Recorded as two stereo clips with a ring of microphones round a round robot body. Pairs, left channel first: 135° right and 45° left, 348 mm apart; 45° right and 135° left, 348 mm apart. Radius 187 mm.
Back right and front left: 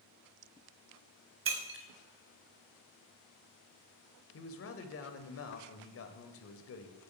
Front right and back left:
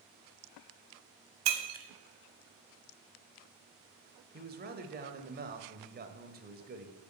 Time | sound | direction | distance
1.4 | breaking glass | 95° left | 1.5 m
4.3 | a man speaking | 170° right | 1.4 m